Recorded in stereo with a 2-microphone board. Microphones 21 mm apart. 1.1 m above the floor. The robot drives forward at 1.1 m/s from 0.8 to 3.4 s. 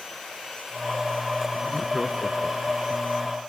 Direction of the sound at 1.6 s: 15° left (ahead or behind).